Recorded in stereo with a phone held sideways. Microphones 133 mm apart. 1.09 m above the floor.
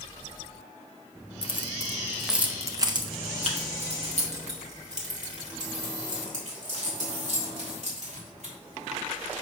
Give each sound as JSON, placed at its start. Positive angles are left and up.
{"t": 1.4, "sound": "keys jangling", "side_deg": 45, "distance_m": 0.7}